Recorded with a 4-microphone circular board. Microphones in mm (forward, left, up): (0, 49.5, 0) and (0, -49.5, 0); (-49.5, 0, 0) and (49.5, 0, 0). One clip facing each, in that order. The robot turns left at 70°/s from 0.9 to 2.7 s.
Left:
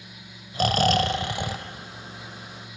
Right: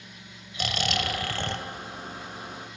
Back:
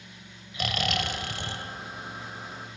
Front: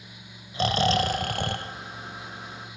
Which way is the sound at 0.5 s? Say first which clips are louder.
Left 9 dB, front 7 dB; 50° left.